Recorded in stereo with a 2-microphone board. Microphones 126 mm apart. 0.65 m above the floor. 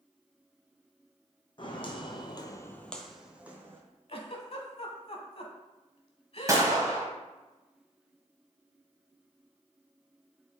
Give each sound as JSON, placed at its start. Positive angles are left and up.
{"t": 1.6, "sound": "footsteps", "side_deg": 40, "distance_m": 1.4}
{"t": 4.1, "sound": "a giggle", "side_deg": 55, "distance_m": 1.0}
{"t": 6.5, "sound": "a gunshot", "side_deg": -25, "distance_m": 1.7}